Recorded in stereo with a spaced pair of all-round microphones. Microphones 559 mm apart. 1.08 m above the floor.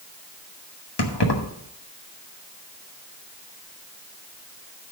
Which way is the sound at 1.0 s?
45° left (ahead or behind).